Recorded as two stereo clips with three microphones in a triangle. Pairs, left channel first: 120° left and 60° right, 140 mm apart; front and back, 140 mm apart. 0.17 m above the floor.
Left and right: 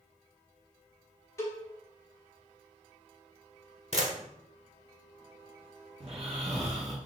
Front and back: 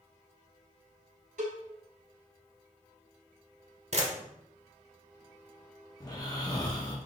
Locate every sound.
1.4 s a cowbell: 175° right, 1.2 m
3.9 s a camera shutter: 155° left, 0.8 m
6.0 s snoring: 50° right, 0.9 m